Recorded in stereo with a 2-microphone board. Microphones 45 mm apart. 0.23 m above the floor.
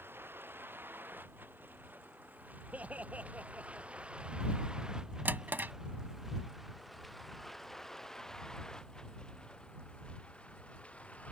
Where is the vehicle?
55° right (ahead or behind); by 11.3 s 30° left (ahead or behind).